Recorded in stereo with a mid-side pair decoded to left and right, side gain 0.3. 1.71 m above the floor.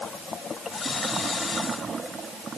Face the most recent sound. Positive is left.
No sound to turn to.